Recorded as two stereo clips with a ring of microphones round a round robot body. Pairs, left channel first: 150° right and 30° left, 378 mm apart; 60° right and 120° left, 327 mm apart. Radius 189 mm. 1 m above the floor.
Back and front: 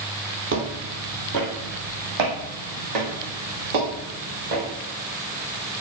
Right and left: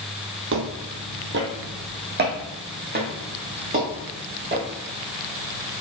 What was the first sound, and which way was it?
Footsteps, 80° left.